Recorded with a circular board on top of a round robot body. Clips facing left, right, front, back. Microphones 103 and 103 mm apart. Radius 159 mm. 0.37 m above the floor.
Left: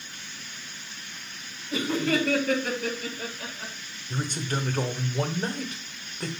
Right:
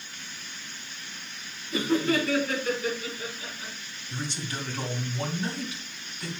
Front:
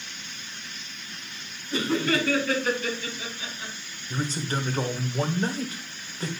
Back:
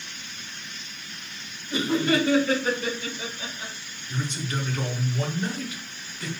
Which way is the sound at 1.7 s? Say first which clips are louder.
Right 1 dB, back 2 dB; 110° left.